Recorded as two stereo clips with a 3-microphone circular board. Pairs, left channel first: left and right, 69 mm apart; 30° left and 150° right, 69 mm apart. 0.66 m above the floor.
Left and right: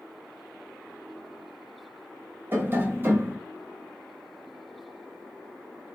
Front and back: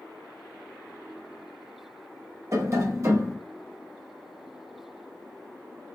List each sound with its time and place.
2.5 s tapping: 135° right, 0.8 m